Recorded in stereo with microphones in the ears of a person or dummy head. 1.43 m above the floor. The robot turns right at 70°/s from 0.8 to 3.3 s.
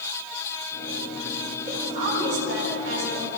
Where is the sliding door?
I don't hear a sliding door.